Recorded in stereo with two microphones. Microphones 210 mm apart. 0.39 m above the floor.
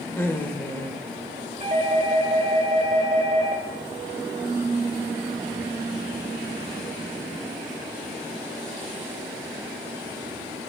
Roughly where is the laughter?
Centre.